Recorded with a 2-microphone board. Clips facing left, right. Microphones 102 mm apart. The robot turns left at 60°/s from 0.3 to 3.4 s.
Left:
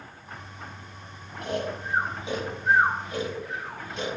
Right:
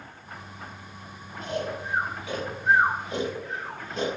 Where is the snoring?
75° left (ahead or behind), 5 m; by 4.2 s 40° right (ahead or behind), 5 m.